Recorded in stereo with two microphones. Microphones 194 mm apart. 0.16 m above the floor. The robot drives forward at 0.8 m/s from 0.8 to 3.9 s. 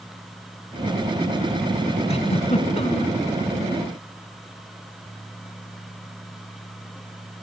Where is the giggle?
35° left (ahead or behind), 1.7 m; by 3.1 s 30° left (ahead or behind), 1.9 m.